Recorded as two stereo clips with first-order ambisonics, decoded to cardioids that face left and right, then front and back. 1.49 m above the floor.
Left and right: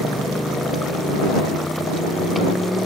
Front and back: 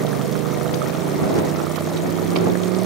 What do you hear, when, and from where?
0.0 s a motorcycle: 175° left